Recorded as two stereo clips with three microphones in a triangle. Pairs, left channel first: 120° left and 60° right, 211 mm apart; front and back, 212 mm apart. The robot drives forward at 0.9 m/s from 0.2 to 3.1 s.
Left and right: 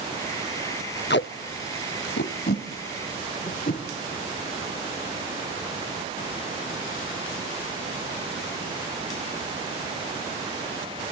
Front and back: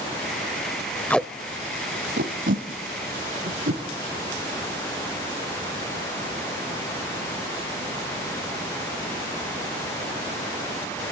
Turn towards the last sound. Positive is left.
turn(degrees=160)